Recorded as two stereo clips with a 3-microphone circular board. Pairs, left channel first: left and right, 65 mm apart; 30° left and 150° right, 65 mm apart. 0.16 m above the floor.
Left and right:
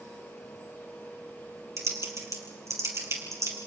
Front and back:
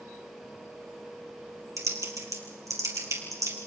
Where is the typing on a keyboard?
125° right, 3.5 m.